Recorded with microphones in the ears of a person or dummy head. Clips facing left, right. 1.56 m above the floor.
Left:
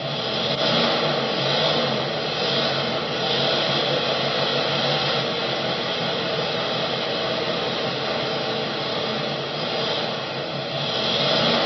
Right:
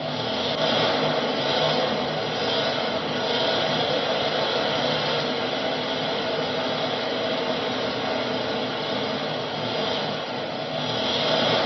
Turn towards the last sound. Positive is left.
turn(degrees=30)  # may be behind; listen again after turning